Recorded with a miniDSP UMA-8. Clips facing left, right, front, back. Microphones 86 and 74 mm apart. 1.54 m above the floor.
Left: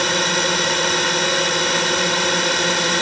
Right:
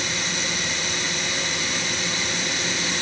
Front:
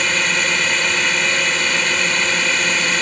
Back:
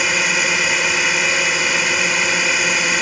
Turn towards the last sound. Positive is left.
turn(degrees=100)